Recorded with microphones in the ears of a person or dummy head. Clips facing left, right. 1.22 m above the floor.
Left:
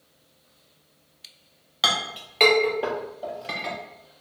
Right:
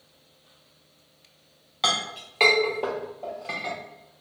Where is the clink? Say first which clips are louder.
Even; 10° left (ahead or behind), 0.6 m.